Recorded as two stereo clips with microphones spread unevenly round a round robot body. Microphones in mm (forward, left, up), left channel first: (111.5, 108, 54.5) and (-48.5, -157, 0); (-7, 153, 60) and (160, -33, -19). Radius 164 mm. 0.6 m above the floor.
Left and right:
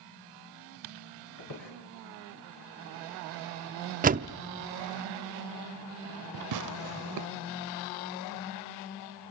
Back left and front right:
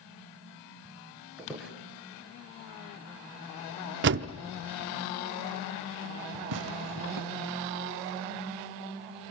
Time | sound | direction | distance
1.4 | a squeak | 40° left | 5.5 m
4.0 | a door slam | 65° right | 0.7 m
6.5 | tearing paper | 90° right | 0.6 m